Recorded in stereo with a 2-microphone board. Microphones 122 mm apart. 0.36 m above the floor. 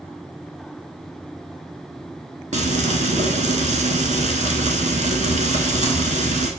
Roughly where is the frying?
Right.